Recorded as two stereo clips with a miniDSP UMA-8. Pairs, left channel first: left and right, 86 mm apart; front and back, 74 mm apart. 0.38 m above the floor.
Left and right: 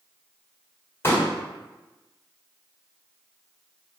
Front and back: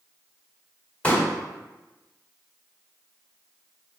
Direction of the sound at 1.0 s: 60° left.